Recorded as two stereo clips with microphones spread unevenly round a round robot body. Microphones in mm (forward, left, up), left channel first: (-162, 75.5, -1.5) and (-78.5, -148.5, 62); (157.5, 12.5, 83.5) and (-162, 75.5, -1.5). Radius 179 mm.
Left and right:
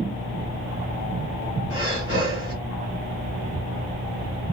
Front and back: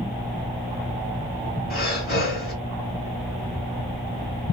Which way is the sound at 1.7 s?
55° left.